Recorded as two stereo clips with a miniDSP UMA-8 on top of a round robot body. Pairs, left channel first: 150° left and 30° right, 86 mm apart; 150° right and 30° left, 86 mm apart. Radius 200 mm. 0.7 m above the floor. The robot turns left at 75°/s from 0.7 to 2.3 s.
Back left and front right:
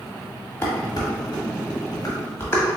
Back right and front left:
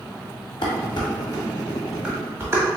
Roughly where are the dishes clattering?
Behind right.